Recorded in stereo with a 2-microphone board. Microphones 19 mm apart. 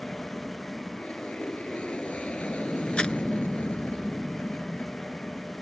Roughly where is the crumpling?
Left.